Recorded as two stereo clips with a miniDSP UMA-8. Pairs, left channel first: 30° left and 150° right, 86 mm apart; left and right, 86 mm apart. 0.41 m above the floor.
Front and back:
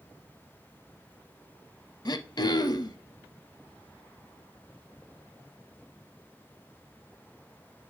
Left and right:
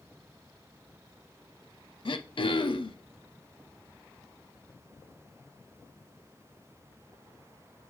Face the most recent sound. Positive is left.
turn(degrees=70)